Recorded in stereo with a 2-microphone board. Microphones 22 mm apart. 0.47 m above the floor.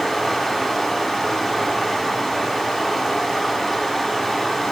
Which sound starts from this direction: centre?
Running water, at 0.0 s.